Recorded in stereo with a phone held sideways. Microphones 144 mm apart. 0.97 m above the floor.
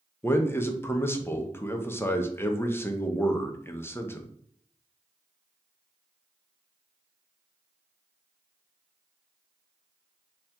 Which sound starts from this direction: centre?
A man speaking, at 0.2 s.